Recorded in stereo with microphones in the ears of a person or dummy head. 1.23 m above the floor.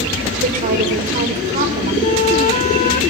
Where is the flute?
45° left (ahead or behind), 0.6 m.